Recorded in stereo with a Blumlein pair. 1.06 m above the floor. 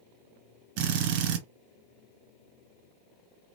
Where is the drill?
45° right, 1.2 m.